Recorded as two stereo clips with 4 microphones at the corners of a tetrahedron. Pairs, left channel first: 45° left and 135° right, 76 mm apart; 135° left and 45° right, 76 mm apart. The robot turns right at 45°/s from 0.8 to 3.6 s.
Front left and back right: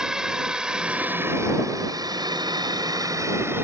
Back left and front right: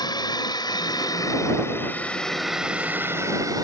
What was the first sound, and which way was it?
A drone, 145° left.